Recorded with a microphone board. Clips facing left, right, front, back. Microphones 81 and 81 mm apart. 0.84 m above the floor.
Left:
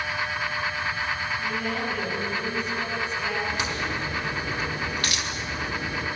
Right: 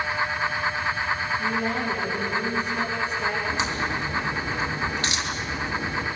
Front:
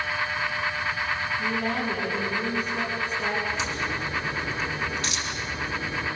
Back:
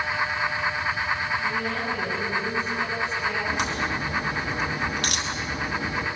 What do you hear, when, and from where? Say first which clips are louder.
1.4 s a woman speaking: right 3 dB, even; 35° right, 8 m
3.5 s a crack: right 2 dB, back 2 dB; 155° right, 4.5 m